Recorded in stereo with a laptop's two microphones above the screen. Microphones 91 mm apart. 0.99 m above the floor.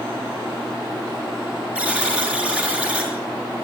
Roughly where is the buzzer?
Centre.